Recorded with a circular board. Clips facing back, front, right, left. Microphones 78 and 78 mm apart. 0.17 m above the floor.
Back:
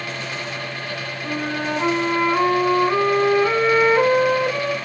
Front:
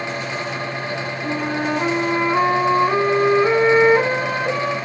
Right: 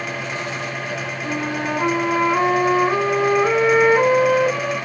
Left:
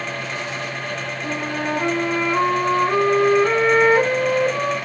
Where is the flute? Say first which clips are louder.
Front 2 dB, right 1 dB; 15° right, 1.5 m.